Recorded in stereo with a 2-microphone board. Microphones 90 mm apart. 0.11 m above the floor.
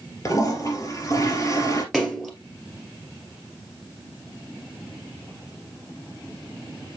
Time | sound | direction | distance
0.2 | a toilet flushing | 40° left (ahead or behind) | 3 m
1.9 | a splash | centre (ahead or behind) | 2 m